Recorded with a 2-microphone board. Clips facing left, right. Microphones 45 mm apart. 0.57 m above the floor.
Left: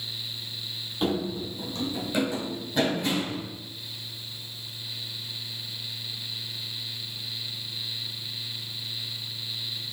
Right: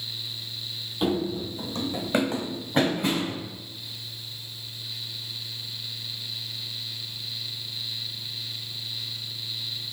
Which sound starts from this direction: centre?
Running footsteps, at 1.0 s.